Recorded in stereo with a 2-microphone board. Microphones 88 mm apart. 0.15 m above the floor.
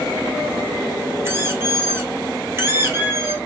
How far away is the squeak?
About 1.2 m.